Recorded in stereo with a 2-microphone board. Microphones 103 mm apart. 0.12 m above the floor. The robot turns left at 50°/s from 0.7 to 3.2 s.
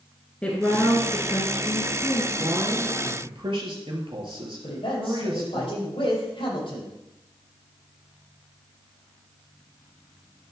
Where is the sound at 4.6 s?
60° left (ahead or behind), 5 m.